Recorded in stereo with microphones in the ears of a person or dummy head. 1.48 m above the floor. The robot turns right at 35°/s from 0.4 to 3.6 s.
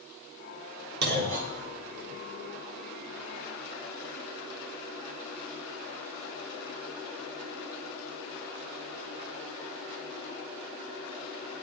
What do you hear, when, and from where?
1.0 s a clunk: 60° right (ahead or behind), 2 m; by 2.2 s 15° right (ahead or behind), 2 m